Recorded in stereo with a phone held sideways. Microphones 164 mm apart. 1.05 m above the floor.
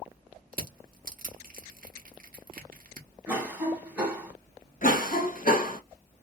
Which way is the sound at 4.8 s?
55° left (ahead or behind).